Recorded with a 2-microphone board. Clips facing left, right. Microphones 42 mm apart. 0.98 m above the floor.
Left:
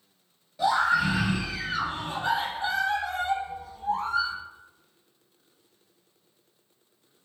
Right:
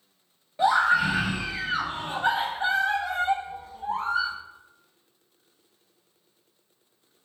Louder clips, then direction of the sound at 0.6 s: Right 2 dB; 40° right (ahead or behind).